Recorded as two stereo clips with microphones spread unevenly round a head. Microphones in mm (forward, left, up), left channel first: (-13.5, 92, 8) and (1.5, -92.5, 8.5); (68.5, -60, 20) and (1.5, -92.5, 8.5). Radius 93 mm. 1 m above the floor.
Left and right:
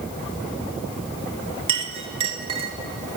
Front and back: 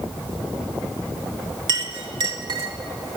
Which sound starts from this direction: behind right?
A clink, at 1.7 s.